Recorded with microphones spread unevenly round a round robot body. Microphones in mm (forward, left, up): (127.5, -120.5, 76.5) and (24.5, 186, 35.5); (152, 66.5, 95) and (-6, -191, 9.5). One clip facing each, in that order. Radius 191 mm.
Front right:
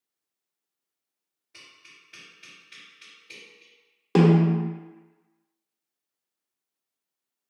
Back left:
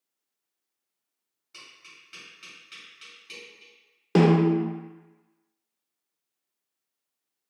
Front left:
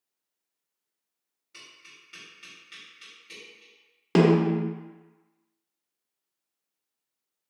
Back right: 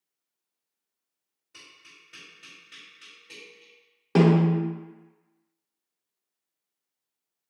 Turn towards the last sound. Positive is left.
turn(degrees=10)